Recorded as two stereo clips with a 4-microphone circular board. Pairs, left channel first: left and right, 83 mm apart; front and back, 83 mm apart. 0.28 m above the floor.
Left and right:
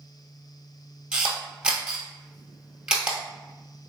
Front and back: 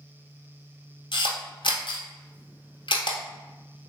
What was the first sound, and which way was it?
A camera shutter, 10° right.